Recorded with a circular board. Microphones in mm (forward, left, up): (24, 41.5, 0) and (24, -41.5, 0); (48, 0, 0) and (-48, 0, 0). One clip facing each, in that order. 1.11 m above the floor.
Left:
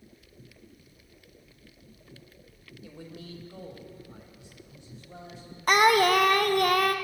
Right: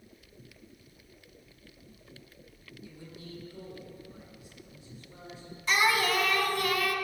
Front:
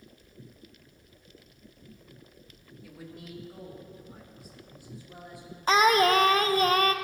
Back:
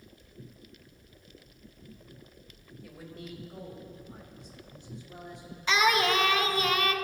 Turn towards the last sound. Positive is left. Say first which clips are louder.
# left 7 dB, front 4 dB
turn(degrees=50)